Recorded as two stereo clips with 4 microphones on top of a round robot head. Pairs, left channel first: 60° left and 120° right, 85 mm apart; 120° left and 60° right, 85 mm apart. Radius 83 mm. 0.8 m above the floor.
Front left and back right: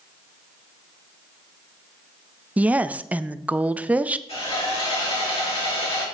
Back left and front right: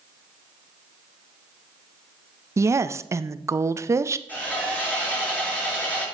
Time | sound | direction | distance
2.6 | a woman speaking | 65° right | 0.5 m
4.3 | sawing | 50° left | 6 m